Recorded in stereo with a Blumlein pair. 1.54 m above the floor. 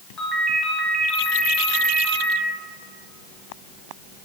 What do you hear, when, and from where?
0.2 s a ringtone: 10° left, 1.8 m